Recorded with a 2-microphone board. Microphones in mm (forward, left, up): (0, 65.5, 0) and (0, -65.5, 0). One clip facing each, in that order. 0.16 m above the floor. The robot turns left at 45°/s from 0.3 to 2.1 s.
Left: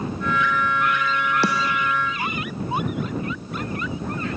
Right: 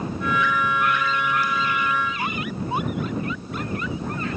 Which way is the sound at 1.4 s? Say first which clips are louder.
Left 3 dB; 75° left (ahead or behind).